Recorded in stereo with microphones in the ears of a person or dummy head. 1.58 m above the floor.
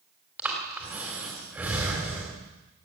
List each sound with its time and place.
0.4 s breathing: 10° right (ahead or behind), 3 m